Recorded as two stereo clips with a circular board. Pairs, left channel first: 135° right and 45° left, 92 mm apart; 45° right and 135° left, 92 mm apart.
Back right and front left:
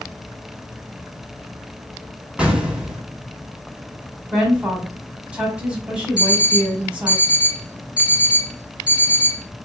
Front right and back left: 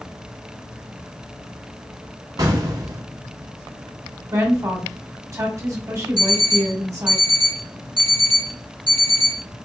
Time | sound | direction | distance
2.4 | an explosion | 120° left | 0.8 m
4.3 | a woman speaking | 115° left | 1.4 m
6.2 | an alarm clock | 30° right | 2 m